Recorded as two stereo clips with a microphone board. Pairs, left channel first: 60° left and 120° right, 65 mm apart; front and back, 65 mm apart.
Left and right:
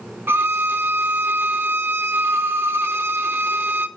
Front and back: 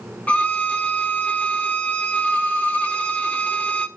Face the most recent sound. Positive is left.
turn(degrees=-65)